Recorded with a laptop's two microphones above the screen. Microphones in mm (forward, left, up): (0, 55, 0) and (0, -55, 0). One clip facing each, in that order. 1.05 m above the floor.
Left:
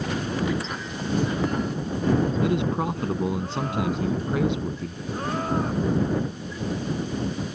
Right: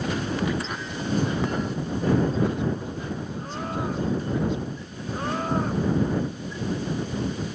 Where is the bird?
I don't hear a bird.